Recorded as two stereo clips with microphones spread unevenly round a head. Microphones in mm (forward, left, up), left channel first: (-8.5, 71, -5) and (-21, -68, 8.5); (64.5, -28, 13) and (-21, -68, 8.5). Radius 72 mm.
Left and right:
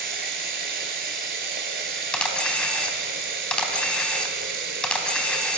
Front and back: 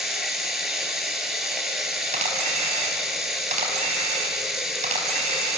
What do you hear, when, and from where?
0.0 s running water: 70° right, 4.5 m
2.1 s a camera shutter: 170° left, 4 m